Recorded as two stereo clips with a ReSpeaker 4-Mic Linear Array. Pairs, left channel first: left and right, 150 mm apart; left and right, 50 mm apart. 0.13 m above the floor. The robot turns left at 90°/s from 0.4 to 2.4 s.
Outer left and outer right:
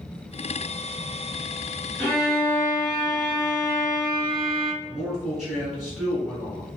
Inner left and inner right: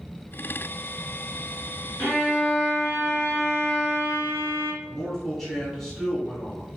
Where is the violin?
175° left, 1.8 m; by 4.7 s 135° left, 1.8 m.